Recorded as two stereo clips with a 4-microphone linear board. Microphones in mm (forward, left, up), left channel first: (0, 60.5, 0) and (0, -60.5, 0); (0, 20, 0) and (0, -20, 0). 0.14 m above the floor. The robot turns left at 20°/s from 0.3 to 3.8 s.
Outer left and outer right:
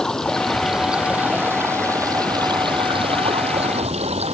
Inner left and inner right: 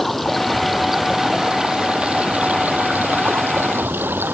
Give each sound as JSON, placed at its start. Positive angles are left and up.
{"t": 0.0, "sound": "running water", "azimuth_deg": 5}